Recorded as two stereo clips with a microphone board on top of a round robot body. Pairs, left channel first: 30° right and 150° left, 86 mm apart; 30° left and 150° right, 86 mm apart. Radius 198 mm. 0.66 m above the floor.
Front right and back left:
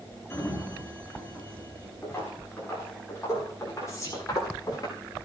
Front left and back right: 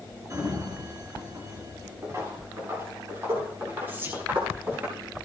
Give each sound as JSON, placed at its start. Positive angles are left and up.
{"t": 0.3, "sound": "a sliding door", "azimuth_deg": -95, "distance_m": 4.5}
{"t": 2.0, "sound": "footsteps", "azimuth_deg": -95, "distance_m": 8.5}
{"t": 3.9, "sound": "whispering", "azimuth_deg": -85, "distance_m": 6.5}